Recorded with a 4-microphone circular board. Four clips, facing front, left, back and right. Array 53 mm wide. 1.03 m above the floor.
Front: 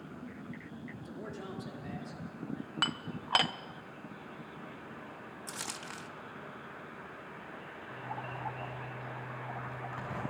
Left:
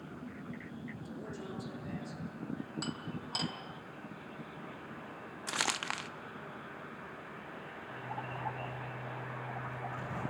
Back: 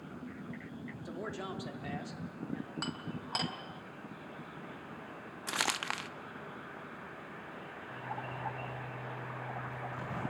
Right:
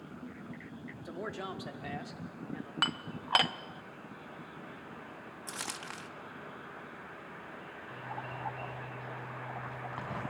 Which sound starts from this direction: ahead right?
Dishes clattering, at 2.8 s.